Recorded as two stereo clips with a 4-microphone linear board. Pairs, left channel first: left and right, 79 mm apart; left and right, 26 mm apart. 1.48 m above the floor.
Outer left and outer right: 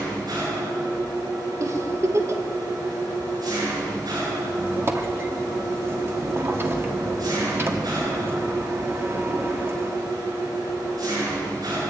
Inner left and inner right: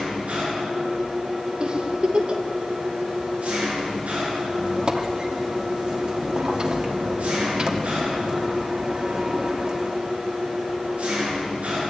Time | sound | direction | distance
0.0 | an engine running | 55° right (ahead or behind) | 9.5 m
1.6 | a giggle | 40° right (ahead or behind) | 1.8 m
4.5 | a squeak | 35° right (ahead or behind) | 2.5 m